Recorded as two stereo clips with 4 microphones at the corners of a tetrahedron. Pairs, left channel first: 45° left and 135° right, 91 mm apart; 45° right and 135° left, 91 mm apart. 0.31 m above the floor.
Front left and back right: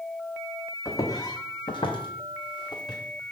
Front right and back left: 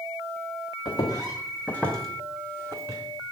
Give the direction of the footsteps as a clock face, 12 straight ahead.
12 o'clock.